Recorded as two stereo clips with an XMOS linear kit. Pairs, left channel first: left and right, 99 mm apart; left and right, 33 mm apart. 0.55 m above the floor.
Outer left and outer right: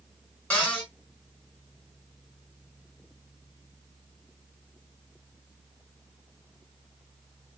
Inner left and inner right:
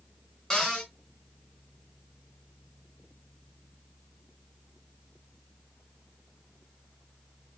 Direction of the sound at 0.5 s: 15° left (ahead or behind).